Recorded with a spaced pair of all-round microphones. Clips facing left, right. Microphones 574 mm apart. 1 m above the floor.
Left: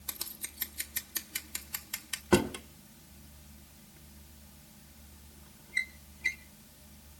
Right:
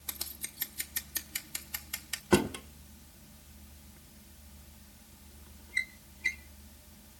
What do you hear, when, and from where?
0.1 s scissors: 10° right (ahead or behind), 1.0 m
2.3 s a drawer: centre (ahead or behind), 0.7 m